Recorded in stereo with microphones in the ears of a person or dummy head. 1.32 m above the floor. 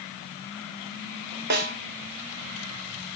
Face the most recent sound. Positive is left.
turn(degrees=-55)  # may be behind; listen again after turning